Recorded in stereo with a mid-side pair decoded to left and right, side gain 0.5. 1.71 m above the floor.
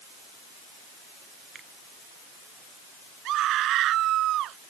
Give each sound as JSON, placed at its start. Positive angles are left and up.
{"t": 1.6, "sound": "a finger snap", "azimuth_deg": -45}
{"t": 3.2, "sound": "a scream", "azimuth_deg": -65}